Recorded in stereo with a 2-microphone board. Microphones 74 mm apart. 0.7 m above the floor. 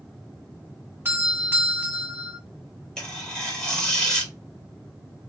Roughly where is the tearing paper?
Centre.